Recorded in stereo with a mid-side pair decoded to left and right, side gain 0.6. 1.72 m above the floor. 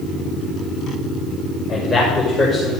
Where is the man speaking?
35° left, 6 m; by 2.7 s 40° left, 5.5 m.